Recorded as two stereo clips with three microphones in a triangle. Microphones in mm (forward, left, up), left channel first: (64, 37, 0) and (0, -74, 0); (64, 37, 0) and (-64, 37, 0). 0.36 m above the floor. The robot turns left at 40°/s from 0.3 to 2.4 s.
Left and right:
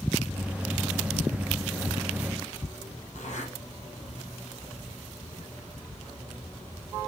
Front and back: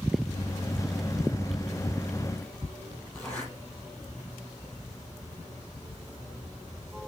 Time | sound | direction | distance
3.1 | a zipper | 80° left | 4.5 m